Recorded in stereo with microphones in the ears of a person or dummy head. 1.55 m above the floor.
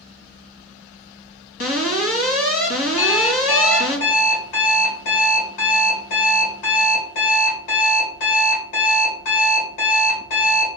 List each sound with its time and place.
1.6 s an alarm: 70° left (ahead or behind), 2 m
3.0 s an alarm clock: 70° left (ahead or behind), 4 m